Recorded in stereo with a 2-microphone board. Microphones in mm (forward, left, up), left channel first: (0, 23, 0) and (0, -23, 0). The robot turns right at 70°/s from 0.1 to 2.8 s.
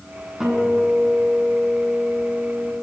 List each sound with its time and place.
0.4 s a guitar: 15° right, 9.5 m; by 2.7 s 150° left, 9.5 m